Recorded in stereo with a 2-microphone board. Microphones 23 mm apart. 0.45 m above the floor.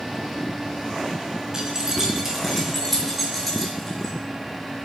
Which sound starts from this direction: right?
Keys jangling, at 1.5 s.